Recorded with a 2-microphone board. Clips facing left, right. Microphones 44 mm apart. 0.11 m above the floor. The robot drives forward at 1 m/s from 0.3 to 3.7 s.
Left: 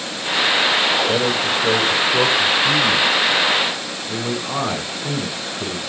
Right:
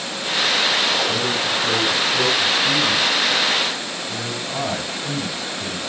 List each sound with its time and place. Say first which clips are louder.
1.1 s a man speaking: left 3 dB; 70° left (ahead or behind), 4.5 m; by 5.8 s 60° left (ahead or behind), 5 m